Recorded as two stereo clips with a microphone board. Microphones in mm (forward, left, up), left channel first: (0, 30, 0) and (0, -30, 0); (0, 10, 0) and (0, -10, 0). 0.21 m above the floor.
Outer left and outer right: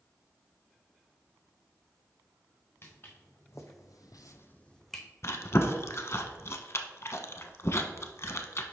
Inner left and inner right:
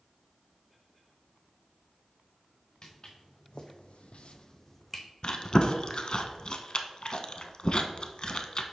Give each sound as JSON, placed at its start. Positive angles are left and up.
{"t": 2.8, "sound": "footsteps", "side_deg": 40, "distance_m": 1.9}
{"t": 5.2, "sound": "chewing", "side_deg": 50, "distance_m": 0.6}